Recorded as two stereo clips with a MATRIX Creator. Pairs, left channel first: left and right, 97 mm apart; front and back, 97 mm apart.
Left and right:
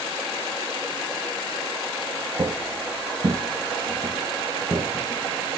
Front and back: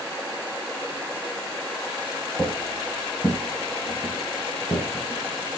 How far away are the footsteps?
About 1.8 m.